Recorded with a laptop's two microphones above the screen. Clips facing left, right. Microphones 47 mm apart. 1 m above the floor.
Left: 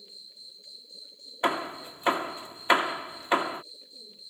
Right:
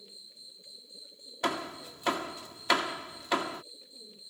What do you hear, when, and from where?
0.0 s an insect: 20° right (ahead or behind)
1.4 s hammering: 20° left (ahead or behind)